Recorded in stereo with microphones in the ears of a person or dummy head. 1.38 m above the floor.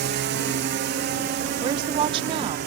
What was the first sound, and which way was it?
A drone, 60° right (ahead or behind).